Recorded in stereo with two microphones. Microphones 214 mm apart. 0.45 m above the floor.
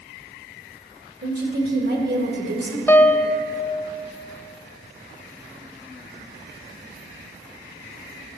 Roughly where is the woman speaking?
Right.